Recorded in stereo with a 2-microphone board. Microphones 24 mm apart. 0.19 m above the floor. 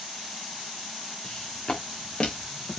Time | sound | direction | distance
1.2 | footsteps | 20° left (ahead or behind) | 4.5 m